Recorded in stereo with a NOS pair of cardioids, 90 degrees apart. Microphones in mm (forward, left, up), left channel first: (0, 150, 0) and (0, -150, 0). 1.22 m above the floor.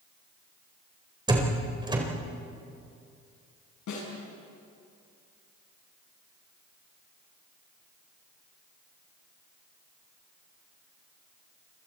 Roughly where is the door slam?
Ahead.